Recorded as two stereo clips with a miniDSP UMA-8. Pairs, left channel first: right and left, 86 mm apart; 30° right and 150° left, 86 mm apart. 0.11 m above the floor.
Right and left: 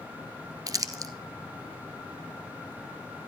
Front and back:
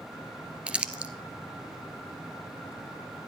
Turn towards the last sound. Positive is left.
turn(degrees=80)